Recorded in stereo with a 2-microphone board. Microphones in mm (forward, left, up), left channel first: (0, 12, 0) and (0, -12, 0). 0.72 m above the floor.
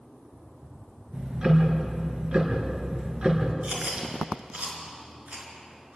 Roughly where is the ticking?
Right.